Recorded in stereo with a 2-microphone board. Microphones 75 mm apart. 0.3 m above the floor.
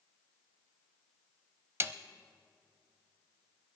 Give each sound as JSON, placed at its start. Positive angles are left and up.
{"t": 1.8, "sound": "a snare drum", "side_deg": -35, "distance_m": 0.6}